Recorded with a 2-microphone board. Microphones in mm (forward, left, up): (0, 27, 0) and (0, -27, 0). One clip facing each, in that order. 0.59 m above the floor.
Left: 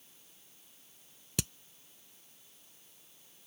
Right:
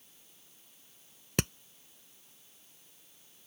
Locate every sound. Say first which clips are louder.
1.4 s hammering: right 6 dB; 50° right (ahead or behind)